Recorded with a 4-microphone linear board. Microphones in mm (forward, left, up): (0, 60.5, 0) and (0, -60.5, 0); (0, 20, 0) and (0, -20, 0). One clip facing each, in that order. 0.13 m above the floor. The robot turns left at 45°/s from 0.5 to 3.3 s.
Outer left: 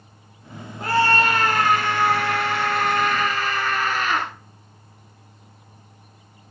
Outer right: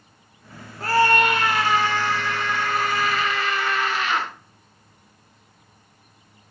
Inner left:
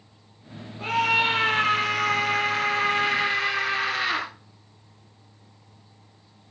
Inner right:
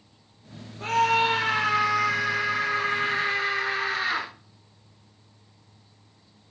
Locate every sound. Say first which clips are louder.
0.8 s a scream: outer right 1 dB, even; 160° left, 3 m; by 4.3 s 50° left, 3 m